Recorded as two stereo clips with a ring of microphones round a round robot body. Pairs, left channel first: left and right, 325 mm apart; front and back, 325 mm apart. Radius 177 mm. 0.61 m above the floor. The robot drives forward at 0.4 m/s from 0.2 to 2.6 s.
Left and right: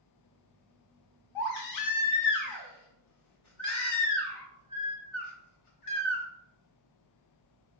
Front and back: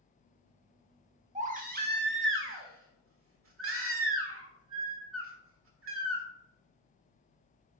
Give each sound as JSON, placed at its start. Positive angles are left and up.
{"t": 1.4, "sound": "a baby crying", "azimuth_deg": 110, "distance_m": 1.2}